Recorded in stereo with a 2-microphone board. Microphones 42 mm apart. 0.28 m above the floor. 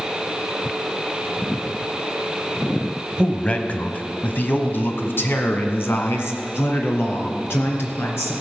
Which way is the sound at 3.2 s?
20° left (ahead or behind).